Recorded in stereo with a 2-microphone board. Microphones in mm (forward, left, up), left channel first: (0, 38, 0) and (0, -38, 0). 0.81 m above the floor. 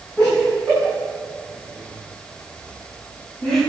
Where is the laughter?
10° left (ahead or behind), 7.5 m; by 3.6 s centre (ahead or behind), 11 m.